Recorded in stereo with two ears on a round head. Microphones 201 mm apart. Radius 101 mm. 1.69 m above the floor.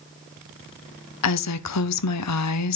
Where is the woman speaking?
85° left, 0.8 m.